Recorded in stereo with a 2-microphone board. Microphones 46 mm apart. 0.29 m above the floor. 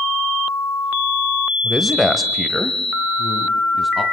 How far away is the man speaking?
About 1.2 m.